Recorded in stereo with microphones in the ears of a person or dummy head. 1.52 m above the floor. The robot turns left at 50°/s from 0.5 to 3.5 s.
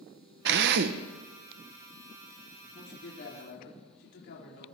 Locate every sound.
0.5 s a drill: 65° right (ahead or behind), 0.7 m; by 3.6 s 50° left (ahead or behind), 0.7 m
2.6 s a man speaking: 165° left, 5 m; by 4.8 s 120° left, 5 m